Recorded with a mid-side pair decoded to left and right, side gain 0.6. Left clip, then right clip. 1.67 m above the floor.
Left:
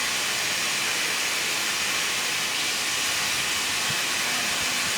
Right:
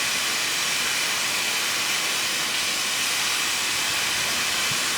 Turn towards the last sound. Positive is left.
turn(degrees=-70)